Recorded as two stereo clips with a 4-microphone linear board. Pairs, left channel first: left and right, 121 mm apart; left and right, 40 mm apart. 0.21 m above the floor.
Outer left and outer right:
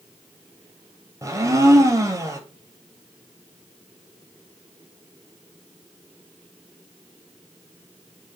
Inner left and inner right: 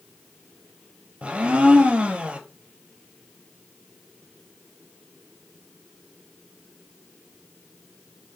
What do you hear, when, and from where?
1.2 s a blender: 25° right (ahead or behind), 0.7 m